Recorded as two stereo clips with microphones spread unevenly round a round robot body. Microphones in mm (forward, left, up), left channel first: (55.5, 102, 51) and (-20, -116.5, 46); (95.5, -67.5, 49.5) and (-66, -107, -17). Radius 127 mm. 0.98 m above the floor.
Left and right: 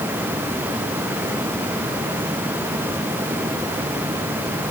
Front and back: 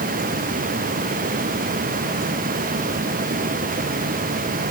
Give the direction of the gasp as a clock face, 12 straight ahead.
I don't hear a gasp.